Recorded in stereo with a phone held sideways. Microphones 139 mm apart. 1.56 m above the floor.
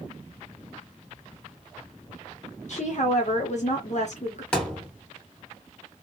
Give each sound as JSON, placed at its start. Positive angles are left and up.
{"t": 2.7, "sound": "a woman speaking", "side_deg": 55, "distance_m": 0.7}
{"t": 4.5, "sound": "a thud", "side_deg": 5, "distance_m": 1.4}